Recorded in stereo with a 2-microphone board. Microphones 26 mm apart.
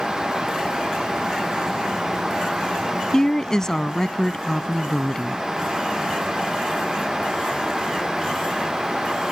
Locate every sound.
3.1 s a woman speaking: 25° left (ahead or behind)